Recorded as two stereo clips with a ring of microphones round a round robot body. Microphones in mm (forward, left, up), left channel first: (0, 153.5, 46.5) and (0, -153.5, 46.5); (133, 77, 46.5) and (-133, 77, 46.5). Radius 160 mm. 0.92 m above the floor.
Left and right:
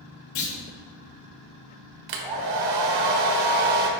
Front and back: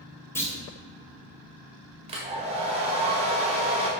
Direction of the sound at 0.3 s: 80° left.